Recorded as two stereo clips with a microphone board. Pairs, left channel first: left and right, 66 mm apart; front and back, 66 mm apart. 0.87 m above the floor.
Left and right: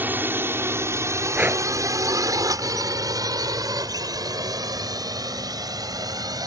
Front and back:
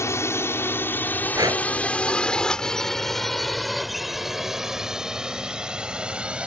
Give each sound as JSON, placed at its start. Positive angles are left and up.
{"t": 0.0, "sound": "a drone", "azimuth_deg": -35}
{"t": 1.4, "sound": "breathing", "azimuth_deg": -155}